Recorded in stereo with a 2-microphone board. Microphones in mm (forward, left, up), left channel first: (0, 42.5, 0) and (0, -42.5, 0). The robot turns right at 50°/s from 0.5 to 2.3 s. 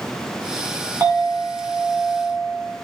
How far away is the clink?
About 1.7 m.